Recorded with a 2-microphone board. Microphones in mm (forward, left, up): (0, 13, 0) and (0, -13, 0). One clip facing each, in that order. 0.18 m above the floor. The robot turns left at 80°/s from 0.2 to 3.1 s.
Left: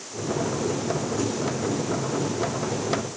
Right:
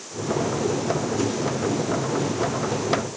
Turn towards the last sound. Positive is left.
No sound to turn to.